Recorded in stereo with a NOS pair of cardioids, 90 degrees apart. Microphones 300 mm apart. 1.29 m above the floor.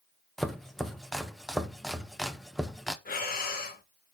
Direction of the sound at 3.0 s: 30° left.